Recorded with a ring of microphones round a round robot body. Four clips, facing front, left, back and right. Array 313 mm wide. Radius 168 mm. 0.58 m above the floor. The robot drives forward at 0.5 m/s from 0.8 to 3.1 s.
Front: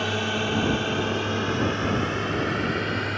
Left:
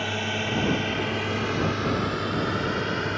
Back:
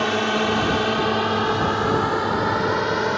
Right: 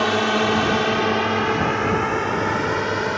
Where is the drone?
120° right; by 3.2 s 145° right.